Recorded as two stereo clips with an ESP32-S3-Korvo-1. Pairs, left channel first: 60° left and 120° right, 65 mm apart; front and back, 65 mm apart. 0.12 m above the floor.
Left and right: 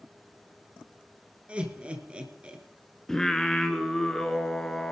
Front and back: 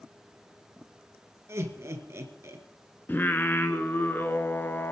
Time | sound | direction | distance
1.5 | laughter | 175° left | 1.9 m
3.1 | singing | 15° right | 1.0 m